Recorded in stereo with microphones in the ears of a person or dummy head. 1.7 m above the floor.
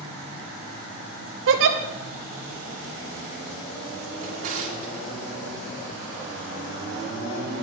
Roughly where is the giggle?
Right.